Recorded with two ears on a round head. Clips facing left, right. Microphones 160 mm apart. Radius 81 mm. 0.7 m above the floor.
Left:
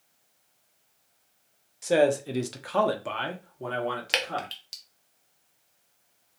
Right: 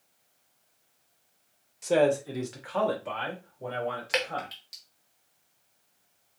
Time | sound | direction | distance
1.8 | a man speaking | 5° left (ahead or behind) | 0.6 m
4.1 | dripping | 35° left (ahead or behind) | 0.9 m